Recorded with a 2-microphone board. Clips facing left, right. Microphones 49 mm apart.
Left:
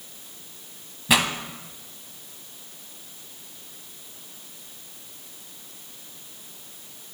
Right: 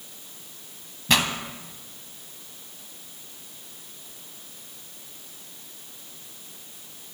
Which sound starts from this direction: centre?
A pop, at 1.1 s.